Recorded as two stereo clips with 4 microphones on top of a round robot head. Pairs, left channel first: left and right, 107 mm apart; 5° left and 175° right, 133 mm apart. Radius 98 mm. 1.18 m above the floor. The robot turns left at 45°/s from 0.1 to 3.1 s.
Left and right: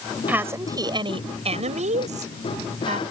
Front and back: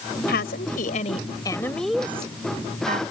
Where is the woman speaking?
15° right; by 3.0 s 135° right.